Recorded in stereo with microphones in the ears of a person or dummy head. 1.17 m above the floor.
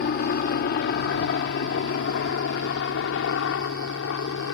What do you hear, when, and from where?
0.0 s a helicopter: 50° left (ahead or behind); by 4.5 s 70° left (ahead or behind)